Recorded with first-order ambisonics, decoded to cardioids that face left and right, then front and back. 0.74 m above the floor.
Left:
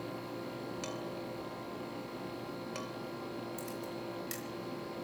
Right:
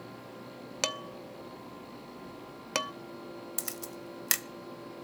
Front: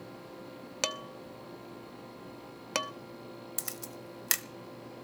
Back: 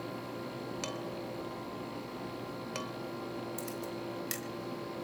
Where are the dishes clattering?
55° right, 0.8 m.